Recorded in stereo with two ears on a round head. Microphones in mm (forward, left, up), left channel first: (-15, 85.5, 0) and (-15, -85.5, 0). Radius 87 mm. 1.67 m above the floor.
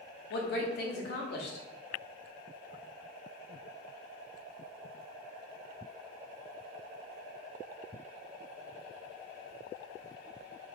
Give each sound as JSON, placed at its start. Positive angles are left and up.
{"t": 0.3, "sound": "a woman speaking", "side_deg": 55, "distance_m": 0.5}